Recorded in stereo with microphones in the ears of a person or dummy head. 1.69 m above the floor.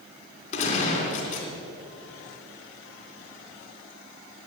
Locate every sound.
0.5 s a gunshot: 40° left (ahead or behind), 3 m